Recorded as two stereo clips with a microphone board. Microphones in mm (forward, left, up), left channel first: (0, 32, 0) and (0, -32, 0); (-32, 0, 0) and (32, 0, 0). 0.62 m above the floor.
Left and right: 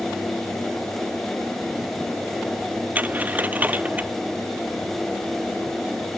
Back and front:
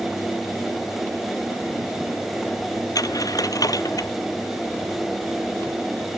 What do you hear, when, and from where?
3.0 s a dropped coin: 155° right